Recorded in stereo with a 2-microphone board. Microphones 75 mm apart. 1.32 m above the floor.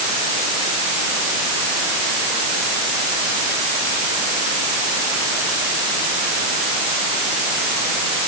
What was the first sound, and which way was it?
Only background noise.